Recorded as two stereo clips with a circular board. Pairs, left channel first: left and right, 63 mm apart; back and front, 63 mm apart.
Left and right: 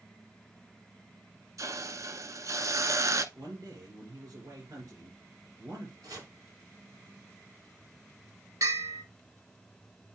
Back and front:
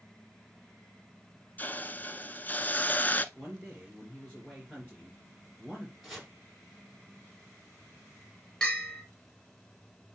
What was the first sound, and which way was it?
A hiss, 120° right.